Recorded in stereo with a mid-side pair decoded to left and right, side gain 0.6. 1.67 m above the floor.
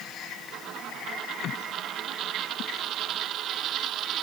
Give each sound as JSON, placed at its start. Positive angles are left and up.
{"t": 0.5, "sound": "a dropped coin", "azimuth_deg": -55}